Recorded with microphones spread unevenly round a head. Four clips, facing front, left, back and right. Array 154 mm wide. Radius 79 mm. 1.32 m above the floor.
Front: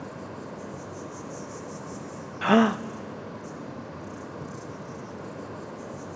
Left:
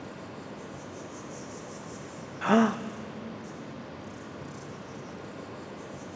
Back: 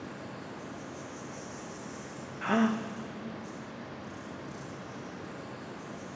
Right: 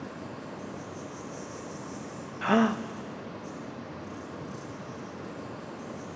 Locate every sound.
0.0 s an insect: straight ahead, 3 m
2.4 s a gasp: 10° left, 0.5 m